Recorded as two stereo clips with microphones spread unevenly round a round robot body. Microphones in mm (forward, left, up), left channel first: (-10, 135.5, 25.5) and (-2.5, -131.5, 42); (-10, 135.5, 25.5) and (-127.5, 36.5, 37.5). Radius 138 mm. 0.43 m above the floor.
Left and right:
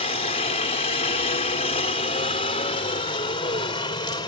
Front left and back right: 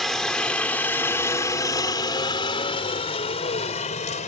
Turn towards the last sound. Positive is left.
turn(degrees=25)